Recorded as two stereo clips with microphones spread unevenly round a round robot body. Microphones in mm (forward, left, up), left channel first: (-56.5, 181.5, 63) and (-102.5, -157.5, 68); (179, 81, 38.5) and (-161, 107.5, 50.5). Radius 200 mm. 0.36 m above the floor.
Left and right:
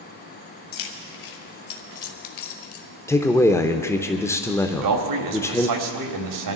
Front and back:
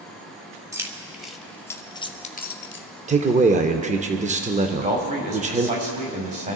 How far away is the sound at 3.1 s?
About 0.9 m.